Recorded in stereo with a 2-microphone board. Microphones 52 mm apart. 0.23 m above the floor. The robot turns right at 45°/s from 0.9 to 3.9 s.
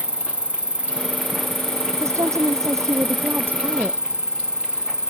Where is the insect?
155° right; by 5.1 s 20° right.